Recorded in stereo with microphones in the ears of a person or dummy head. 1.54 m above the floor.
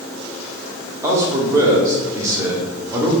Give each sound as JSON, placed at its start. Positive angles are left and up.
{"t": 1.0, "sound": "a man speaking", "side_deg": -15, "distance_m": 0.9}